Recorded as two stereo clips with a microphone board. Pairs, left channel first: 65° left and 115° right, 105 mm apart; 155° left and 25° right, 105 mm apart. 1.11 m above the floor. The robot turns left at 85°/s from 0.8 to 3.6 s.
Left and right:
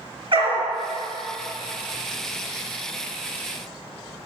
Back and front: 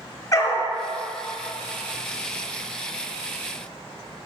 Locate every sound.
0.3 s a dog barking: 145° right, 4 m